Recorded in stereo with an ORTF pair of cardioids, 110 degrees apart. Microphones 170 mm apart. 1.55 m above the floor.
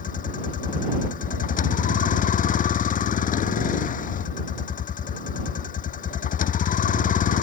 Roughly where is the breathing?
No breathing in this recording.